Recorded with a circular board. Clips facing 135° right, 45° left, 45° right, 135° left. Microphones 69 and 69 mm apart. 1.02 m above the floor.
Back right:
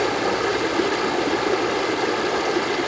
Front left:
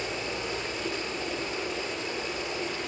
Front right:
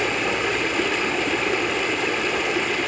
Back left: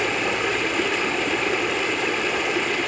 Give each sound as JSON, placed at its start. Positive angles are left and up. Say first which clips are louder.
{"t": 0.0, "sound": "running water", "louder": "back right 12 dB, even", "azimuth_deg": -135, "distance_m": 1.8}